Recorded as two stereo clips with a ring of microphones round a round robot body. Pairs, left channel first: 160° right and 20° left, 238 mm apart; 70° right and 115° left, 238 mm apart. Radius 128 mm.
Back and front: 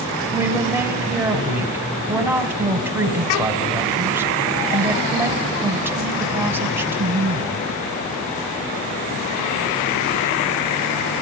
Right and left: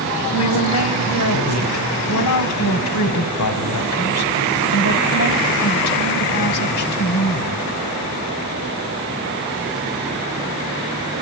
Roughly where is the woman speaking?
Ahead right.